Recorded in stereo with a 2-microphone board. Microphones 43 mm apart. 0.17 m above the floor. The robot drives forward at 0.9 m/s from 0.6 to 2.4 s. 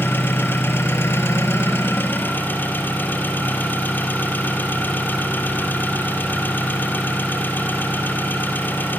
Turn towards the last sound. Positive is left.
turn(degrees=50)  # may be behind; listen again after turning